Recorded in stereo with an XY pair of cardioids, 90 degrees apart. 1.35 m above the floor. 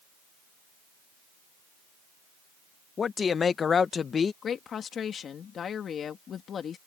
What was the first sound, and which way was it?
A man speaking, 50° left.